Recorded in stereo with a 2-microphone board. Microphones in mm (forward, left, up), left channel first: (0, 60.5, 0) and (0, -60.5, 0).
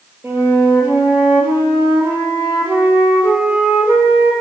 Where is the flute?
15° right (ahead or behind), 3.5 m.